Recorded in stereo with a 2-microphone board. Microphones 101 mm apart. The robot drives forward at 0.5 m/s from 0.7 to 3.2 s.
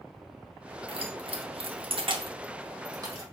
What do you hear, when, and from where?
0.9 s keys jangling: 60° right (ahead or behind), 0.7 m; by 3.2 s 35° right (ahead or behind), 1.1 m